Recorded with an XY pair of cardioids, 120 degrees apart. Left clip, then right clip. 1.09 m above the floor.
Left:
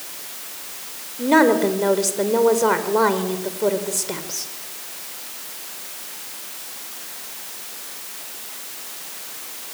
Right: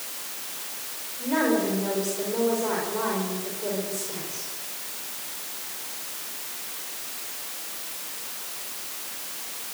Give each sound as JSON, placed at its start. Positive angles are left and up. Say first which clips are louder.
{"t": 1.2, "sound": "a woman speaking", "louder": "left 9 dB", "azimuth_deg": 65, "distance_m": 5.0}